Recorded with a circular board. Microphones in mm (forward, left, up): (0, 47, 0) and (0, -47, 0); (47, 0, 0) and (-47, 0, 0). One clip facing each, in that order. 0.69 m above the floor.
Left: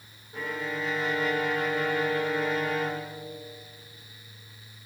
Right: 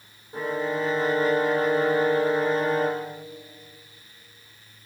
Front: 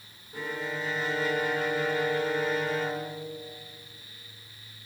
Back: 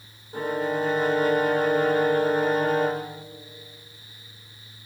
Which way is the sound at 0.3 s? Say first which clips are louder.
Right 6 dB, back 8 dB; 140° right.